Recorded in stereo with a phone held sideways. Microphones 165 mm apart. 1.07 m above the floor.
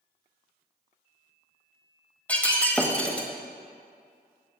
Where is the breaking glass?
10° left (ahead or behind), 1.0 m.